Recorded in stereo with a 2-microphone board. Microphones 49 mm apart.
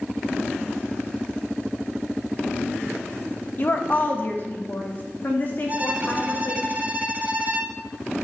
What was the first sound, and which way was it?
A woman speaking, 40° left (ahead or behind).